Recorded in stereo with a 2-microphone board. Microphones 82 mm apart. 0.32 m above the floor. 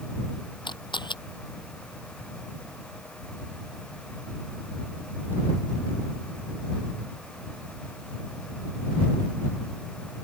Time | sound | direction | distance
0.7 | a camera shutter | 85° left | ?